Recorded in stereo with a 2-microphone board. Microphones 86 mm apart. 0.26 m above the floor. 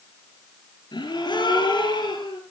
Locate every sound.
0.9 s a gasp: 65° left (ahead or behind), 5 m